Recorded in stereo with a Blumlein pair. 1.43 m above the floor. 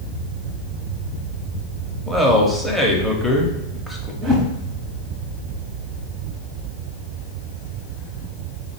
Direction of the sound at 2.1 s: 5° right.